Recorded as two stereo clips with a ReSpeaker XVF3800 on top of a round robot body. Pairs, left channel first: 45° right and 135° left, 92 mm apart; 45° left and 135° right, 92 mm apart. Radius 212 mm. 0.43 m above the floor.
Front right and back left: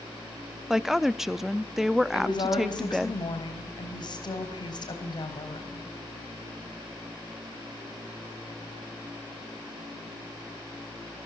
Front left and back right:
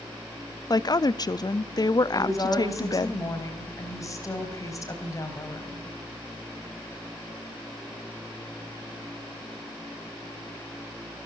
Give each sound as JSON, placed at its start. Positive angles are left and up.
{"t": 0.7, "sound": "a woman speaking", "azimuth_deg": 50, "distance_m": 0.8}
{"t": 2.1, "sound": "a woman speaking", "azimuth_deg": -10, "distance_m": 3.5}